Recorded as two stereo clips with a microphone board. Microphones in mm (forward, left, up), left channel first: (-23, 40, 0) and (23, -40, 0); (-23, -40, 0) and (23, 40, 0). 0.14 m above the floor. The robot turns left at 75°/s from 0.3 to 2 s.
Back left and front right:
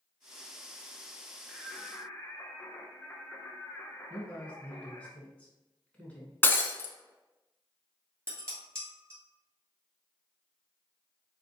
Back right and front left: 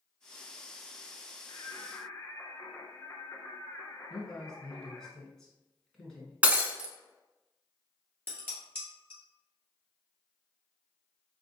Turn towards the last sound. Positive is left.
turn(degrees=-5)